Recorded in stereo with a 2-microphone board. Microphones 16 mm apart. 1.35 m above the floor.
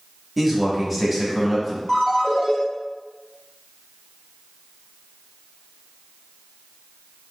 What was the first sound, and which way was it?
A man speaking, centre (ahead or behind).